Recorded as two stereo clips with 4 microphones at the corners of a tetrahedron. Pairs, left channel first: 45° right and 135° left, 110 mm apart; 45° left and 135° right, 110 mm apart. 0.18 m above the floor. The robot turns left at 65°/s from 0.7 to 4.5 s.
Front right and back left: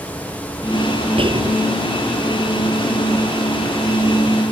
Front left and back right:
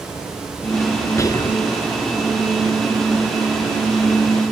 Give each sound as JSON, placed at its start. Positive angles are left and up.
{"t": 1.2, "sound": "whispering", "azimuth_deg": 105}